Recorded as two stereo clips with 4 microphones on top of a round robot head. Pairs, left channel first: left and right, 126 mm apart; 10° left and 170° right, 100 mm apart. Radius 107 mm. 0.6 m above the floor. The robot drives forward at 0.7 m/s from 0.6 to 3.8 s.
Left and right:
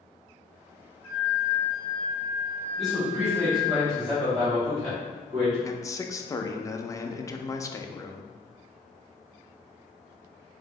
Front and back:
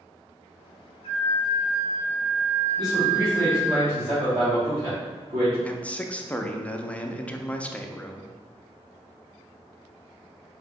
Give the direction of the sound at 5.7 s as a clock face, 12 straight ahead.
10 o'clock.